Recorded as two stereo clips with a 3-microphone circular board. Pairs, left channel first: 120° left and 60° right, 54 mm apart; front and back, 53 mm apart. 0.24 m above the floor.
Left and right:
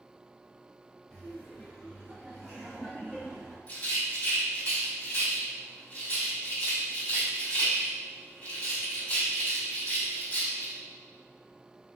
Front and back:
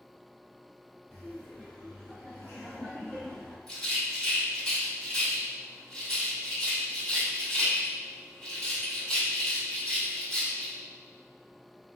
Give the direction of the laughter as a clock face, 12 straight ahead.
10 o'clock.